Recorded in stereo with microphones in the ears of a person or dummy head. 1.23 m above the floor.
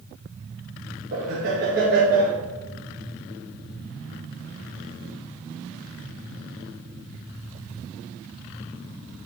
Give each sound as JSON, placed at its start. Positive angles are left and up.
{"t": 1.1, "sound": "laughter", "side_deg": -50, "distance_m": 1.7}